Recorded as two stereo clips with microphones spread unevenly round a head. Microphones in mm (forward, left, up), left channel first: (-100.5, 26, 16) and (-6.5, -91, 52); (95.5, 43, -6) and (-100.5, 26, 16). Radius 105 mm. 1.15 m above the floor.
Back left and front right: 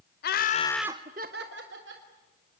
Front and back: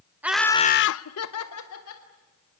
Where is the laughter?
100° left, 0.9 m; by 2.1 s 25° right, 2 m.